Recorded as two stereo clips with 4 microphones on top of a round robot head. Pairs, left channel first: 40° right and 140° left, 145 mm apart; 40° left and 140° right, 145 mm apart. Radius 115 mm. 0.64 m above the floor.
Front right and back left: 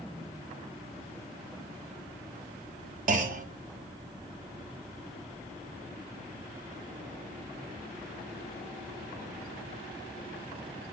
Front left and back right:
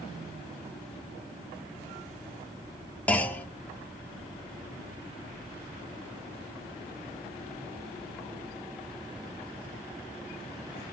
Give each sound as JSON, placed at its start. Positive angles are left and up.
{"t": 3.1, "sound": "a clunk", "azimuth_deg": 120, "distance_m": 1.7}